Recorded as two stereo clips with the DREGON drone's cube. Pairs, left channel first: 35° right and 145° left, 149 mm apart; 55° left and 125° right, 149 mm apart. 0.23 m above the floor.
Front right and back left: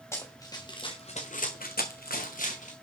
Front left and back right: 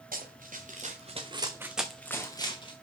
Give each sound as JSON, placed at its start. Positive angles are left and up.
{"t": 0.1, "sound": "running footsteps", "azimuth_deg": -105, "distance_m": 2.0}